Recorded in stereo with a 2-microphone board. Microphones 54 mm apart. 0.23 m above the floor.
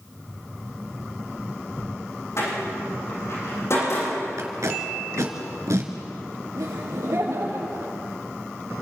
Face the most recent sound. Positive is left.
turn(degrees=-75)  # may be behind; listen again after turning